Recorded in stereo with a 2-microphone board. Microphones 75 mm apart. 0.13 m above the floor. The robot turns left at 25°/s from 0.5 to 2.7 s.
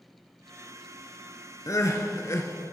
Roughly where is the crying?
Left.